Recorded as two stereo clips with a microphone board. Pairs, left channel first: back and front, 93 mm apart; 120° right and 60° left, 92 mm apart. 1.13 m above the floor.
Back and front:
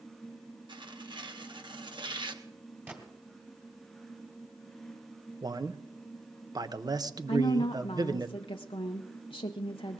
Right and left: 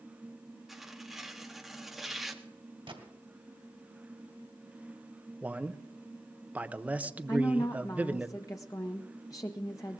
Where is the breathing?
I don't hear breathing.